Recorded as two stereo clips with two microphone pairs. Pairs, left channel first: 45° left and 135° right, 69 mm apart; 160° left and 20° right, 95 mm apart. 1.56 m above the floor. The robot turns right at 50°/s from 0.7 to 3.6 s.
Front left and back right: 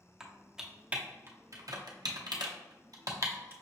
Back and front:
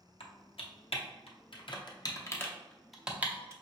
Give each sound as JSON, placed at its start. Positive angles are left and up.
{"t": 0.2, "sound": "typing on a keyboard", "azimuth_deg": 145, "distance_m": 0.6}